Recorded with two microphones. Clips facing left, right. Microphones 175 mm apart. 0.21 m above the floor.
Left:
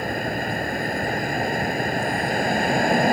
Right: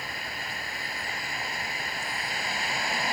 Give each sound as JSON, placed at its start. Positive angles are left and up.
{"t": 0.0, "sound": "a vehicle", "side_deg": 55}